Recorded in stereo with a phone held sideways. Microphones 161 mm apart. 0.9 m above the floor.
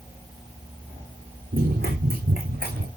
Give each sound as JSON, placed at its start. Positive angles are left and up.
{"t": 1.5, "sound": "running footsteps", "side_deg": -70, "distance_m": 3.0}